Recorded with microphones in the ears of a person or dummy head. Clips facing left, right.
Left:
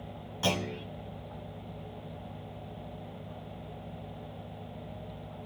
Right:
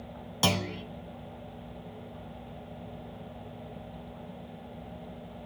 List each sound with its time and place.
0.4 s a clunk: 80° right, 2.5 m